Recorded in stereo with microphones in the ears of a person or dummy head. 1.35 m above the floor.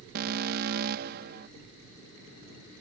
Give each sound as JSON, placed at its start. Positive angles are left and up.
{"t": 0.1, "sound": "an alarm", "side_deg": -50}